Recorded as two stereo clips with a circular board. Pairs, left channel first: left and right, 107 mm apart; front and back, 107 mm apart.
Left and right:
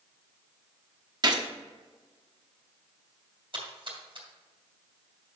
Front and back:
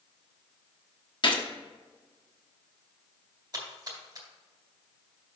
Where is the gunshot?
40° right, 1.0 m.